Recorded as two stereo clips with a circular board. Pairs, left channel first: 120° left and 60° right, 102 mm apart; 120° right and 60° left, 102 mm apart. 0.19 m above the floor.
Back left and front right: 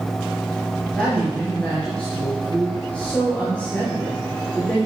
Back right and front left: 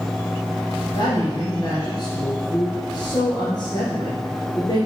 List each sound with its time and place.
0.9 s a woman speaking: 160° right, 3 m